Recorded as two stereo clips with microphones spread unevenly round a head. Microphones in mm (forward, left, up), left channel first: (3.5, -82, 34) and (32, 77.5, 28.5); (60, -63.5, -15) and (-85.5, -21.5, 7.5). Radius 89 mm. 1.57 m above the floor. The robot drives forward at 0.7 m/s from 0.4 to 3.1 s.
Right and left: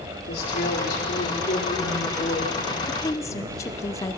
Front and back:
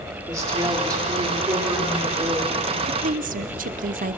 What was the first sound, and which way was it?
A woman speaking, 130° right.